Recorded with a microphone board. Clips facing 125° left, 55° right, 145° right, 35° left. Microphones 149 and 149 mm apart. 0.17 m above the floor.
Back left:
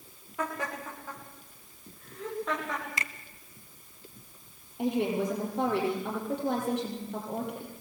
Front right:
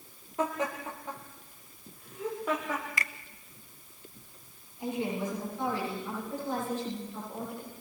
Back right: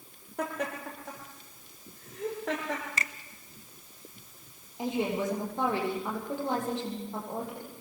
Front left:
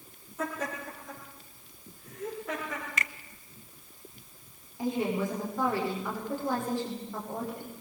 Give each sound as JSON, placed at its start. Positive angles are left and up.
{"t": 0.4, "sound": "laughter", "azimuth_deg": -125, "distance_m": 7.0}
{"t": 3.0, "sound": "a finger snap", "azimuth_deg": 175, "distance_m": 1.1}
{"t": 4.8, "sound": "a woman speaking", "azimuth_deg": 145, "distance_m": 6.5}